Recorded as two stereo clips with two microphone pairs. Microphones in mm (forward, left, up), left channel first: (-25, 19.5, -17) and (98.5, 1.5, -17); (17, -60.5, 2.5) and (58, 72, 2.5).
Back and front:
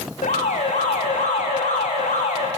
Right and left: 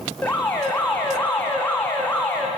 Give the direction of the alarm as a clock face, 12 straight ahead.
6 o'clock.